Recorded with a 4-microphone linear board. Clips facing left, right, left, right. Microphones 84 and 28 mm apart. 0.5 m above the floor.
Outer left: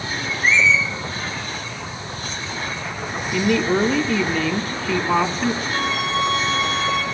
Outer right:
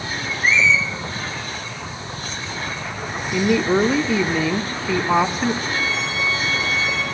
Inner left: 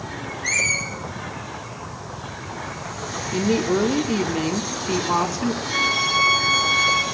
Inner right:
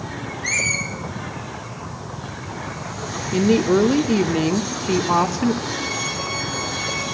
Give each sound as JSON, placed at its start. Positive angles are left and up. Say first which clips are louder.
{"t": 0.4, "sound": "a squeak", "louder": "even, even", "side_deg": -10, "distance_m": 6.5}
{"t": 3.3, "sound": "a woman speaking", "louder": "outer right 1 dB, inner right 4 dB", "side_deg": -10, "distance_m": 0.8}
{"t": 5.7, "sound": "a violin", "louder": "outer left 2 dB, inner left 6 dB", "side_deg": 65, "distance_m": 6.0}